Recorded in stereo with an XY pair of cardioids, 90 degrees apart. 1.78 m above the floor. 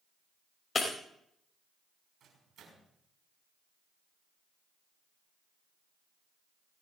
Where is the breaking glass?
45° left, 4.5 m.